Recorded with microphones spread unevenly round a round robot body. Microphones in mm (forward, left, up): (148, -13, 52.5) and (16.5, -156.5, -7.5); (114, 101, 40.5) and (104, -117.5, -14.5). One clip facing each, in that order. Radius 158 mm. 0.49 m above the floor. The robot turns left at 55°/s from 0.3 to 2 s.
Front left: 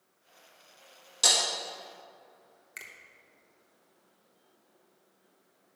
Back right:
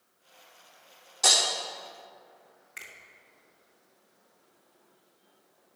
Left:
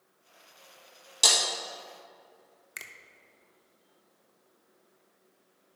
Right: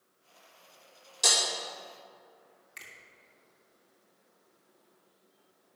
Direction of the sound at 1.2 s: 85° left.